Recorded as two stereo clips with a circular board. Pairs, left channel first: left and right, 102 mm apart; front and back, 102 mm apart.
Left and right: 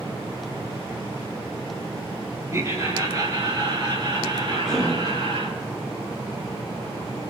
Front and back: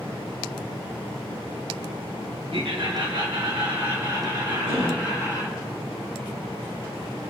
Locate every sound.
2.5 s laughter: 150° right, 4 m; by 5.5 s 125° right, 7 m
4.5 s a cough: 175° left, 4 m